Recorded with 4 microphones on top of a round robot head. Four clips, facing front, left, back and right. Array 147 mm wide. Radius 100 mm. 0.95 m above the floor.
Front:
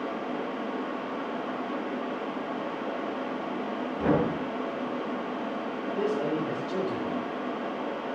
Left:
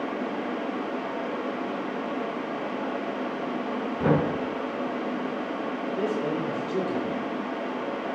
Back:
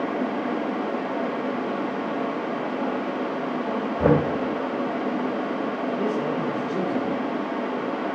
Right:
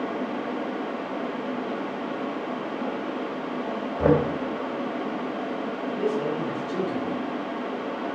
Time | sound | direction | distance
4.0 | knocking | 140° right | 3 m
5.9 | a man speaking | 5° right | 3.5 m